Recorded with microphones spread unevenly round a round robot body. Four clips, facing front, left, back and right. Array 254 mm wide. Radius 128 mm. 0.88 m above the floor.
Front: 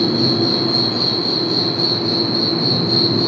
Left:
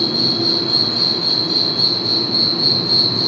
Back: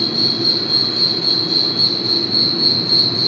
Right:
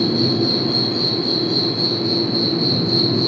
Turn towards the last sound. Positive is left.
turn(degrees=105)